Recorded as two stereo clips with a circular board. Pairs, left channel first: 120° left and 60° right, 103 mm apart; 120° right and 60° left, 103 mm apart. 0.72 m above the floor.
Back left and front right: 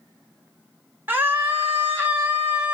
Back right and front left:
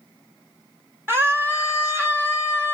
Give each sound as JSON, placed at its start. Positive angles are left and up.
{"t": 1.1, "sound": "a scream", "azimuth_deg": 0, "distance_m": 1.3}